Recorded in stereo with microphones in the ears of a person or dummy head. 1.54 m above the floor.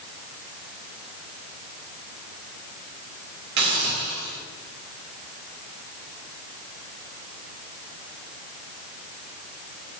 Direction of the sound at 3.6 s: 60° right (ahead or behind).